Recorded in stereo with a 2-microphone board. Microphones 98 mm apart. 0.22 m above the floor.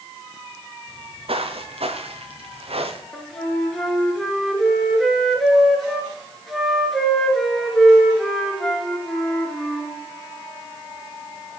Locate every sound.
0.9 s footsteps: 65° right (ahead or behind), 2 m; by 3.0 s 75° right (ahead or behind), 2 m
3.1 s a flute: centre (ahead or behind), 3 m